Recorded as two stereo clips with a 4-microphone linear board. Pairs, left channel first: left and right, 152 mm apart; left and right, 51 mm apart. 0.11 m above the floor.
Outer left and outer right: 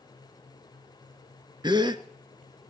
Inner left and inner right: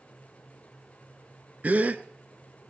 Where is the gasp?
30° right (ahead or behind), 0.8 m.